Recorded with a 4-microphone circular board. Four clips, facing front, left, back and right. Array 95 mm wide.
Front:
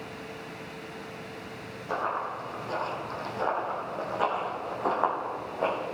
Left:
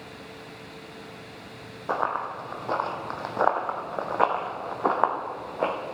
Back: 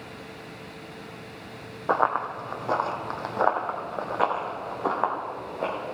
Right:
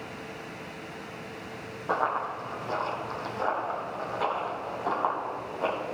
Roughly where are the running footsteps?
Behind.